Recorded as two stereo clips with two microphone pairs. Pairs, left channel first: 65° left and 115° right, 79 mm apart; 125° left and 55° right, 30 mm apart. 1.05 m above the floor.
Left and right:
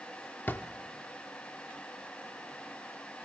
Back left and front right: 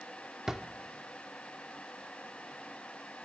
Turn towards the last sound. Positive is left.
turn(degrees=10)